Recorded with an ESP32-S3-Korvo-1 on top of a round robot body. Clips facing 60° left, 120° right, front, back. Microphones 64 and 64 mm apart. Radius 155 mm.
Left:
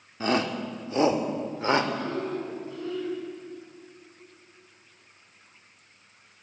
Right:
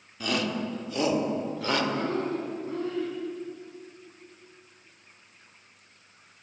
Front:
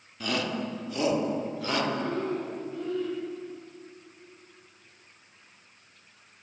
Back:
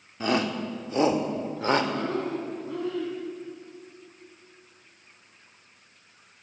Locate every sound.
0.2 s a shout: 120° left, 2.5 m; by 1.8 s 125° left, 3.5 m
1.9 s breathing: 170° right, 4.5 m